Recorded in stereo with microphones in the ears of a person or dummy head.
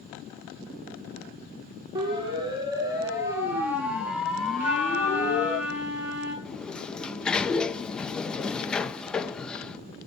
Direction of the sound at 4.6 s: 10° right (ahead or behind).